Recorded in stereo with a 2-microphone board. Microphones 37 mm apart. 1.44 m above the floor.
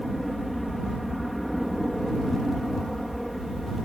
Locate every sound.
0.0 s an aircraft: 5° left (ahead or behind)